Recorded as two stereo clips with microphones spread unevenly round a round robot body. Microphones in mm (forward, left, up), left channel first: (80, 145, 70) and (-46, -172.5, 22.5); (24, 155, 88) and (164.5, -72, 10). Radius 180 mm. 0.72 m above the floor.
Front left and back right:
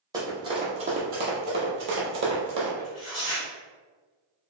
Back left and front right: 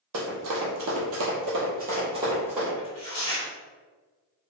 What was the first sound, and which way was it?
Running footsteps, 30° right.